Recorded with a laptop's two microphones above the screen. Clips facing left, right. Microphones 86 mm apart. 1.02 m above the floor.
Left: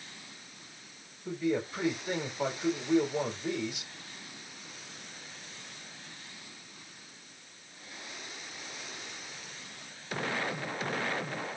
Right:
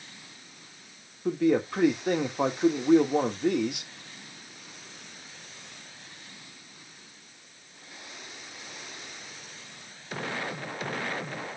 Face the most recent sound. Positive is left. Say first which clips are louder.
# right 7 dB
turn(degrees=-75)  # may be behind; listen again after turning